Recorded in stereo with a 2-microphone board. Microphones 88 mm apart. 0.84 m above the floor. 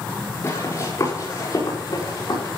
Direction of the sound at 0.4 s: 35° left (ahead or behind).